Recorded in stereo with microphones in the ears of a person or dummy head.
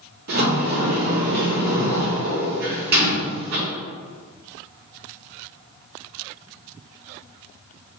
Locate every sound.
0.3 s a sliding door: 50° right (ahead or behind), 0.8 m